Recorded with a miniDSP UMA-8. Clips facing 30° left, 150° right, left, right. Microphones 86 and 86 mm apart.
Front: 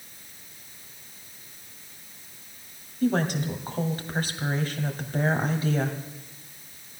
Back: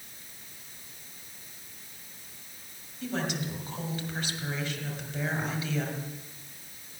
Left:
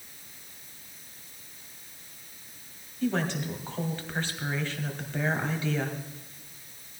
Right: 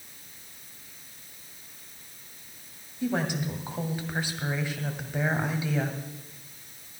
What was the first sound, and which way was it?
A woman speaking, 15° right.